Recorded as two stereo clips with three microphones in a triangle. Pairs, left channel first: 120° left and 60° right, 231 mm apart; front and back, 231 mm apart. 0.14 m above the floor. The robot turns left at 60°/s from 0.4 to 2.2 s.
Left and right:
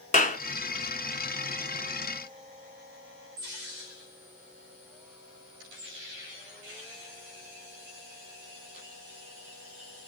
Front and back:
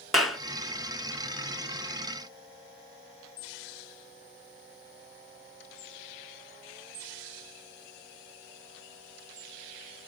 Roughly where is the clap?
Left.